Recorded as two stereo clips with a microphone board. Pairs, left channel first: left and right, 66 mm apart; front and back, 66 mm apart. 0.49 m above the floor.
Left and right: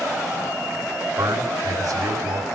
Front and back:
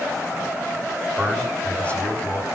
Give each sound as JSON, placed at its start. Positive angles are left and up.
{"t": 1.2, "sound": "a man speaking", "azimuth_deg": -70, "distance_m": 3.5}